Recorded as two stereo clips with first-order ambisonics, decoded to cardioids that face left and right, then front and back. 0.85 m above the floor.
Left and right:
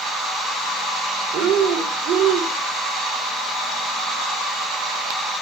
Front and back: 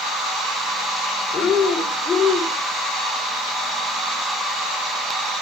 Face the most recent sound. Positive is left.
turn(degrees=-70)